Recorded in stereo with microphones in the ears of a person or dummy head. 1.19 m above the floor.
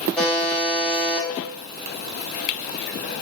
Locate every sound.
0.2 s a buzzer: 10° left (ahead or behind), 1.0 m